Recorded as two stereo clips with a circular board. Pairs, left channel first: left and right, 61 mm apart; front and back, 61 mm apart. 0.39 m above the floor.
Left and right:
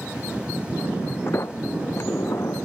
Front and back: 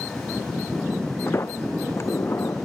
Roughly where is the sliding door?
Ahead left.